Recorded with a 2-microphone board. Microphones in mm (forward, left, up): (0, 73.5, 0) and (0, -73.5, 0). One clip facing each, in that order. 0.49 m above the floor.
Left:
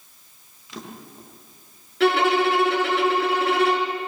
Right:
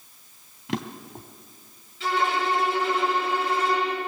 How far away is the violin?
About 4 m.